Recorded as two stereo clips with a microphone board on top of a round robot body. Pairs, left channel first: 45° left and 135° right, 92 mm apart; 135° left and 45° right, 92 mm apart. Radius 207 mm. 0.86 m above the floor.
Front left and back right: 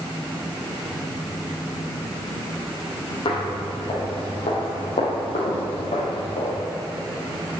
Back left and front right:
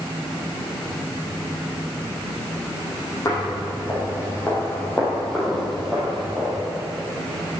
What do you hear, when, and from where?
3.2 s footsteps: 80° left, 2.5 m; by 6.6 s 30° left, 1.9 m